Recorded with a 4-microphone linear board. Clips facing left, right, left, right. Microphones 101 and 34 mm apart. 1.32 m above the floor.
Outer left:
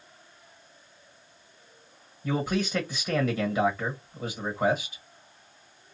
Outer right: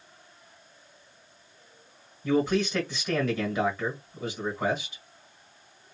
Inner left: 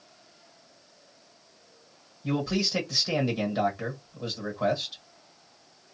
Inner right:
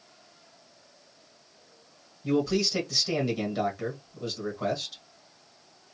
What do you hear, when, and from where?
2.2 s a man speaking: 5° left (ahead or behind), 1.3 m